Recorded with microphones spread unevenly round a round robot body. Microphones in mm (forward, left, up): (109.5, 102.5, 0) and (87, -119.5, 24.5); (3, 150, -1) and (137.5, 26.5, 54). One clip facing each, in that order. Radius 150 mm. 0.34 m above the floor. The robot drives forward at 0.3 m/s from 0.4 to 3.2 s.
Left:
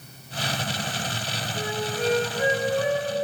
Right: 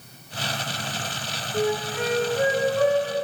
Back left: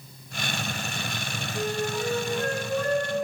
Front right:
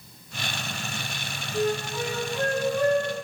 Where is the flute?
65° right, 5 m; by 3.2 s 70° right, 4.5 m.